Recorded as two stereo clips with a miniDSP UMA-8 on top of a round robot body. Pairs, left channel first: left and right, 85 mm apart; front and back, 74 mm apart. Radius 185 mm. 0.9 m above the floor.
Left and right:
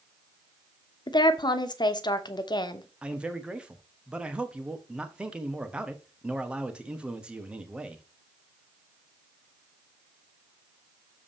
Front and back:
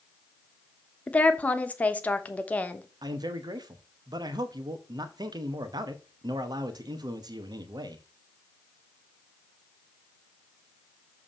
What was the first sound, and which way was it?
A woman speaking, 70° left.